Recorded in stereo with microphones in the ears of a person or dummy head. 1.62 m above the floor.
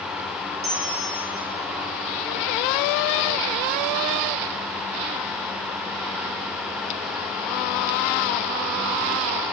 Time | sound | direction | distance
0.6 | a bell | 35° right (ahead or behind) | 1.0 m